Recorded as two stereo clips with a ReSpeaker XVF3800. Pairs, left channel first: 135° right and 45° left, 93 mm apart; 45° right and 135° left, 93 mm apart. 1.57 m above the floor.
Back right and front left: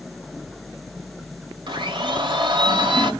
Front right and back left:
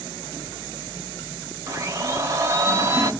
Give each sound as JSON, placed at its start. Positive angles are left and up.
{"t": 1.7, "sound": "a blender", "azimuth_deg": 75, "distance_m": 0.9}